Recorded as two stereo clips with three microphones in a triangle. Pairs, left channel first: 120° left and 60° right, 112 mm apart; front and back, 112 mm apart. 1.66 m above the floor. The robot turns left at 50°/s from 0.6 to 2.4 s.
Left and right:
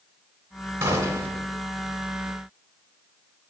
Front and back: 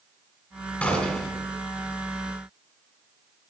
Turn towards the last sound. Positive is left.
turn(degrees=-135)